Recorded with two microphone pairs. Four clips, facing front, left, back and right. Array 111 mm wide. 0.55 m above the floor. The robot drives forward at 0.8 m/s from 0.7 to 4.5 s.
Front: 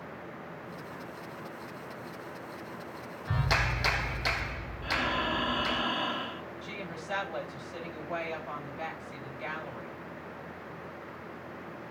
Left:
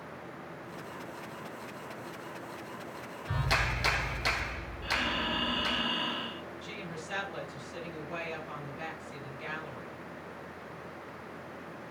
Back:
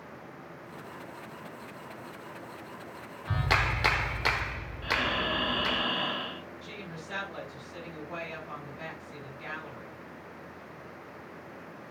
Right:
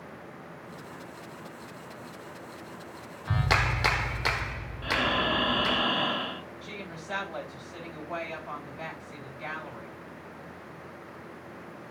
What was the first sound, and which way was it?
A clap, 100° right.